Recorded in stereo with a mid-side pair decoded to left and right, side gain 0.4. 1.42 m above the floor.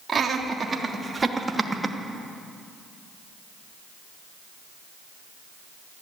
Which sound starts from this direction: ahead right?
Laughter, at 0.1 s.